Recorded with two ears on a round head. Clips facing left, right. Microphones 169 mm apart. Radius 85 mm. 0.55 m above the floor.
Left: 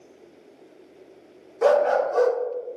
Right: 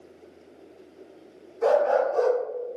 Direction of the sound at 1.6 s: 80° left.